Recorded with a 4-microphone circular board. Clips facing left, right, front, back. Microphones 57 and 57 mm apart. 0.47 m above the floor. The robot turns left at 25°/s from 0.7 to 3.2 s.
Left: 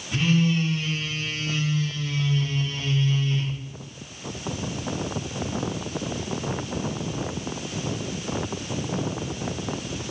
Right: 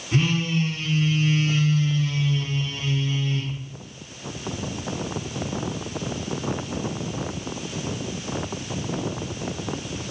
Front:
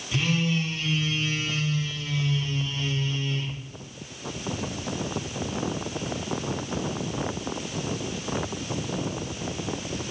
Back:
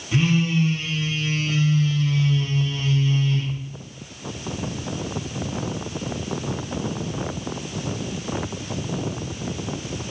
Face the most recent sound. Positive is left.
turn(degrees=175)